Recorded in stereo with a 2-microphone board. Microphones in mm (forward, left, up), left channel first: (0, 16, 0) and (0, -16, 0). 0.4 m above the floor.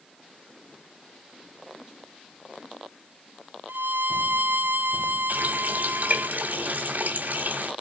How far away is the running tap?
About 1.3 m.